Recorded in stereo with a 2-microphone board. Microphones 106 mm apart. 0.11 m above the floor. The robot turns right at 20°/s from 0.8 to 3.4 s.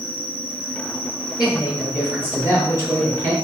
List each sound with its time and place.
0.0 s an insect: 130° right, 2 m; by 3.4 s 80° right, 2 m
1.4 s a woman speaking: 170° right, 1.8 m; by 3.3 s 130° right, 1.8 m